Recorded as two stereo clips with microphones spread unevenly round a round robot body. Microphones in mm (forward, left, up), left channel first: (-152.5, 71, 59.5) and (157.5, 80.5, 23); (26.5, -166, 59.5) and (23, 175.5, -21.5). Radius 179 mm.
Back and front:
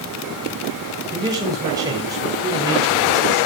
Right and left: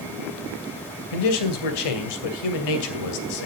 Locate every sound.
1.1 s a man speaking: 75° right, 2.5 m